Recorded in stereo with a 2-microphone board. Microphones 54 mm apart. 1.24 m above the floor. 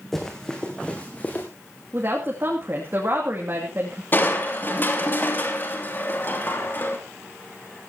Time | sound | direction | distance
0.1 | running footsteps | 10° left (ahead or behind) | 3.5 m
1.9 | a woman speaking | 45° right (ahead or behind) | 2.5 m
4.1 | crushing | 40° left (ahead or behind) | 2.5 m